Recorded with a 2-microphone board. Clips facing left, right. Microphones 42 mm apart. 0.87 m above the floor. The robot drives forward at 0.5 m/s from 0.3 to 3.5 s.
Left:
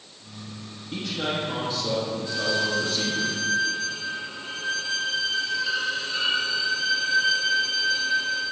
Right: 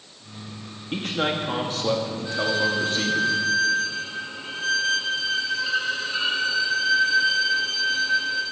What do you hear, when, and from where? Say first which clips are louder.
0.9 s a man speaking: right 3 dB; 60° right (ahead or behind), 1.5 m; by 3.2 s 40° right (ahead or behind), 2.0 m
2.2 s a violin: right 4 dB; 20° right (ahead or behind), 3.5 m